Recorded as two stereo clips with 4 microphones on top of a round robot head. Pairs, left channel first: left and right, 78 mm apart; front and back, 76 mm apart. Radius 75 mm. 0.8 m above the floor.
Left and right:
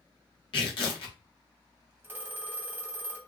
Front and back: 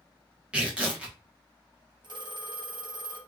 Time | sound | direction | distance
0.5 | tearing paper | 105° left | 1.1 m
2.0 | a phone ringing | 155° right | 0.9 m